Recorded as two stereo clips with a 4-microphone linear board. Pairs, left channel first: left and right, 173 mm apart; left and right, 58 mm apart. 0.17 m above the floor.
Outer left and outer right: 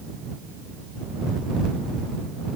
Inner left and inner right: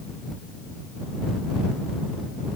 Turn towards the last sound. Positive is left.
No sound to turn to.